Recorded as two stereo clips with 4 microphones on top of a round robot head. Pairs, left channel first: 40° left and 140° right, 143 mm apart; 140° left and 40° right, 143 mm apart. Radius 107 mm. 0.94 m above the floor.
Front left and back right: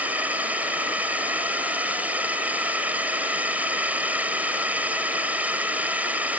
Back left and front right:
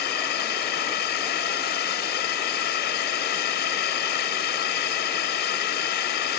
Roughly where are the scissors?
No scissors in this recording.